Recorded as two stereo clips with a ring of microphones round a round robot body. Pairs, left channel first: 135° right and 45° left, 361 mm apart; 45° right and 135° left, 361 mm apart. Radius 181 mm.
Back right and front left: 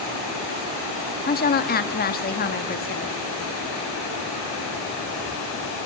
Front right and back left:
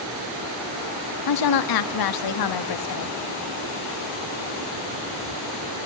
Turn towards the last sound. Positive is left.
turn(degrees=-70)